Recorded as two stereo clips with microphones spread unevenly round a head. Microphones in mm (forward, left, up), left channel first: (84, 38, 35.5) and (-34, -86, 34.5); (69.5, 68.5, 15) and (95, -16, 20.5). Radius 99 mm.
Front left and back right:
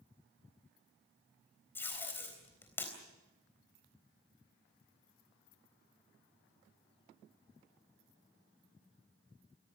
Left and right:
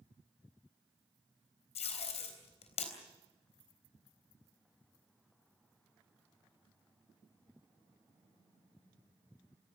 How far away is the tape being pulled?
About 3.5 m.